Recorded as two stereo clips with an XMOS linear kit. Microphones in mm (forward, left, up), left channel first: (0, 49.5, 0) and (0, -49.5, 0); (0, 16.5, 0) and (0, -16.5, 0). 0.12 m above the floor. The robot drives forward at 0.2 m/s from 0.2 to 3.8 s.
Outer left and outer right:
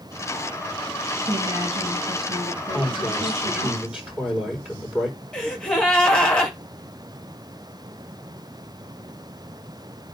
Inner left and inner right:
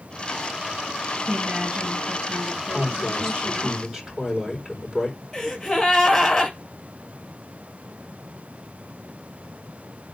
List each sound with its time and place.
1.2 s a woman speaking: 55° right (ahead or behind), 3 m; by 3.7 s 50° right (ahead or behind), 3 m
2.7 s a man speaking: 10° right (ahead or behind), 3.5 m
5.3 s a gasp: 10° left (ahead or behind), 2 m